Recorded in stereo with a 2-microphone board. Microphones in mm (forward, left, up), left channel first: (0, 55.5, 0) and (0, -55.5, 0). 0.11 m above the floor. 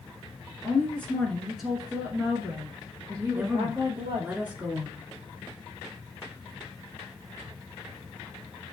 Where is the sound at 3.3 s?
15° right (ahead or behind), 1.1 m.